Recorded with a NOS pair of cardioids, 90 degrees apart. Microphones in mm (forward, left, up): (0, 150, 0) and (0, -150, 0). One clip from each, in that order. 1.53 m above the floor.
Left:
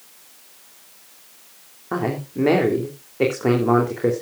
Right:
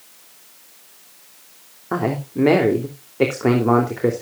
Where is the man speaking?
15° right, 3 m.